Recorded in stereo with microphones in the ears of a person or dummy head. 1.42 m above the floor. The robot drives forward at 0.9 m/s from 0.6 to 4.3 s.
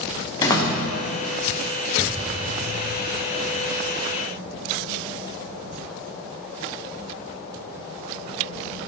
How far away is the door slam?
About 0.9 m.